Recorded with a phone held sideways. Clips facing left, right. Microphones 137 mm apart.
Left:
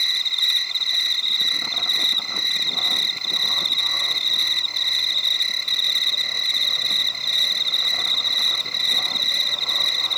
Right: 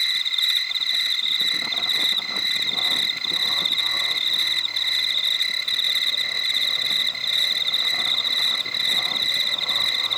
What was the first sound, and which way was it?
An insect, 35° left (ahead or behind).